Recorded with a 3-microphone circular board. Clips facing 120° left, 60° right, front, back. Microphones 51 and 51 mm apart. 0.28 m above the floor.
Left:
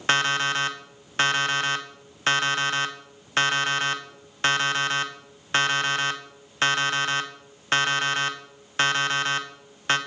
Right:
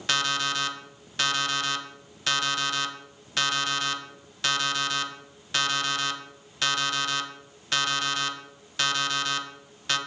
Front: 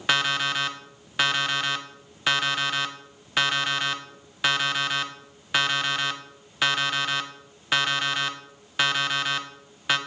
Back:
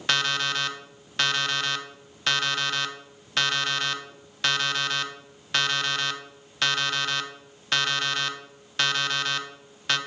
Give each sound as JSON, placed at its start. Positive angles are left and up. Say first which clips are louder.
{"t": 0.1, "sound": "an alarm clock", "louder": "left 4 dB, front 2 dB", "azimuth_deg": 75, "distance_m": 0.7}